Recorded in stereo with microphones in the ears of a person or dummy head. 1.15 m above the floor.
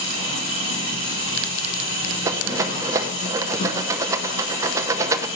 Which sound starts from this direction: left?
An engine running, at 0.0 s.